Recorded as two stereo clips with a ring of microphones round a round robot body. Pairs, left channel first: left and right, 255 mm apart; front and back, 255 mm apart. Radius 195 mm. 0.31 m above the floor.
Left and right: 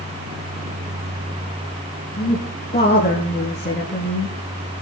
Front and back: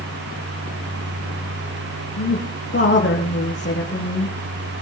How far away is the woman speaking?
About 6.5 m.